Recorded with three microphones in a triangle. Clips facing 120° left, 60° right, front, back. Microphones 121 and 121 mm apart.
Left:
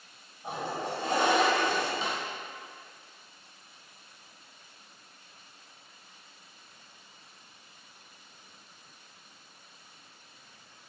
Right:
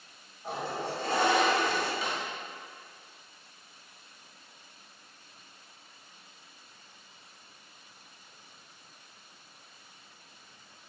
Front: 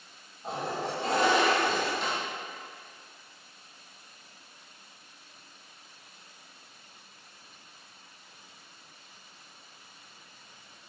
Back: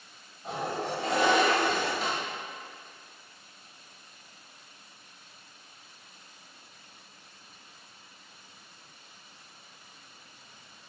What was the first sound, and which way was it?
A toilet flushing, 50° left.